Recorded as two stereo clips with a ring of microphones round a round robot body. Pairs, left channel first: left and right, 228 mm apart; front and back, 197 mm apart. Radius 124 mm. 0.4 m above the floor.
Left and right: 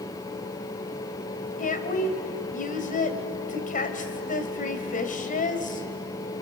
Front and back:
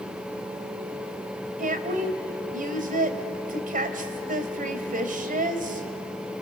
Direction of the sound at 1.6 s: 140° left.